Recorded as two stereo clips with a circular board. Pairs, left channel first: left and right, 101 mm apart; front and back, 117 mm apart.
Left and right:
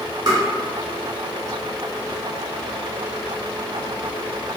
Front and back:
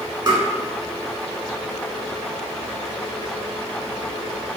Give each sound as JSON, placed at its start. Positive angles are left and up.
{"t": 0.3, "sound": "tapping", "azimuth_deg": -130, "distance_m": 1.0}